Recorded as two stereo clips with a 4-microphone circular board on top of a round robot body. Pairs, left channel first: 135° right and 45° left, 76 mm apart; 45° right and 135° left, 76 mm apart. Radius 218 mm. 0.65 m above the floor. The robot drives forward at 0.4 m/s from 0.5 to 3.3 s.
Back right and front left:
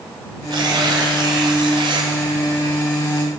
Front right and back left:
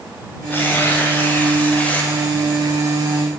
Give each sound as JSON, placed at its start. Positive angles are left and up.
{"t": 0.5, "sound": "tearing paper", "azimuth_deg": 20, "distance_m": 1.8}